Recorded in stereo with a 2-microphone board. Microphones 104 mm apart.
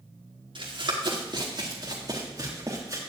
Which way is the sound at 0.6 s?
50° right (ahead or behind).